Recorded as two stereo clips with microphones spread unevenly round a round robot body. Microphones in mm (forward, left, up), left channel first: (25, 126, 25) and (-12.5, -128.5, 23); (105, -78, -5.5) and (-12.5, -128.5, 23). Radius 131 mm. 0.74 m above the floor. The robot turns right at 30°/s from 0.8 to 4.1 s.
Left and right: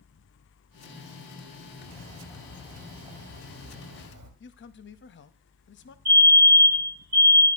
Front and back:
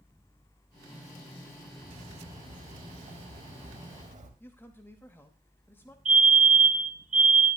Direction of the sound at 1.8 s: 155° left.